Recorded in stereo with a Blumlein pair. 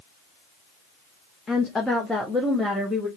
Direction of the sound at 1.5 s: 20° left.